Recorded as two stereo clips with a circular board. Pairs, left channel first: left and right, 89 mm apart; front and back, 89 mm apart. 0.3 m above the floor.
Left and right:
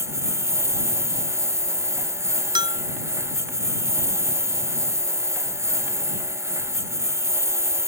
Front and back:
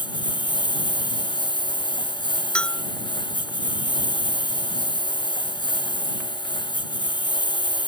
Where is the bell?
75° right.